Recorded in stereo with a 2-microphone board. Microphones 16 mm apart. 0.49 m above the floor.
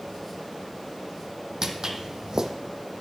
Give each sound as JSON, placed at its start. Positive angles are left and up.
{"t": 1.6, "sound": "footsteps", "side_deg": -40, "distance_m": 0.9}